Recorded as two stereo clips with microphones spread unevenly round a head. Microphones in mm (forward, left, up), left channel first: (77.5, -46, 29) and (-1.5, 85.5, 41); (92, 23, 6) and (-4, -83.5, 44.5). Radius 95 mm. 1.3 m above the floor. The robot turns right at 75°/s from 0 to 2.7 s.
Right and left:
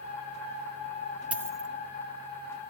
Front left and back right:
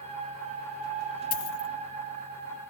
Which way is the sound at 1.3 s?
45° left.